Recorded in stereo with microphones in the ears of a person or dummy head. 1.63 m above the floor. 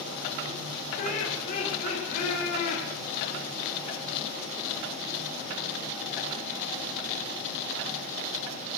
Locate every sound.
1.0 s laughter: 50° left (ahead or behind), 8.5 m